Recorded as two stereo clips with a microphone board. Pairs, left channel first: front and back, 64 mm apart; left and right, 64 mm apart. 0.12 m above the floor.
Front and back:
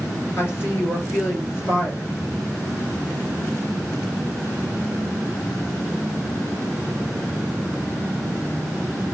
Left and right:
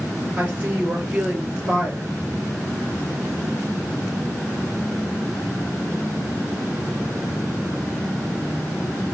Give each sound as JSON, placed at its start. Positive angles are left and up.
{"t": 0.4, "sound": "a woman speaking", "azimuth_deg": -35, "distance_m": 2.5}